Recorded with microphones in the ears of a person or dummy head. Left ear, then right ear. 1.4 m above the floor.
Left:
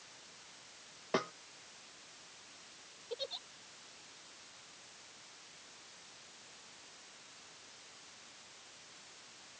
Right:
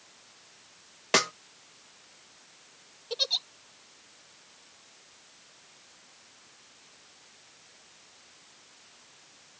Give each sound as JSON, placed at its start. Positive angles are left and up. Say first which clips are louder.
{"t": 1.1, "sound": "a snare drum", "louder": "right 11 dB", "side_deg": -60}
{"t": 3.1, "sound": "a giggle", "louder": "right 14 dB", "side_deg": -65}